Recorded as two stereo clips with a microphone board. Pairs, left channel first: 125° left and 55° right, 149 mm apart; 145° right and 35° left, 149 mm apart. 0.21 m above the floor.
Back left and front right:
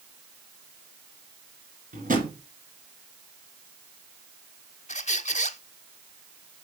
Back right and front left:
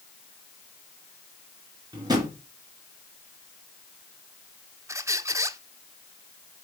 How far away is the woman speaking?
No woman speaking in this recording.